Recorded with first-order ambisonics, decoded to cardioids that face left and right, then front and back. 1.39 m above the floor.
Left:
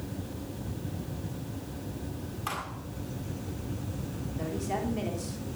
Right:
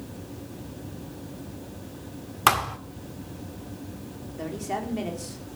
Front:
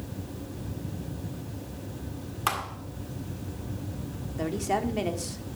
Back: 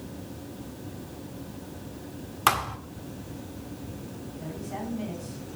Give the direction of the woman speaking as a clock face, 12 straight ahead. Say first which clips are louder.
Right 2 dB, front 10 dB; 12 o'clock.